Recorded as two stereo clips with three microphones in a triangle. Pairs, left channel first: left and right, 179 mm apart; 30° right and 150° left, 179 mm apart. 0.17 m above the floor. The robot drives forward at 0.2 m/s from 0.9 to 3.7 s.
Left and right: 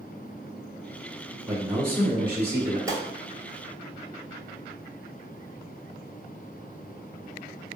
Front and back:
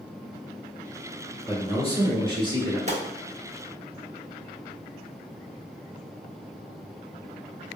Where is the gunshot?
160° right, 0.6 m.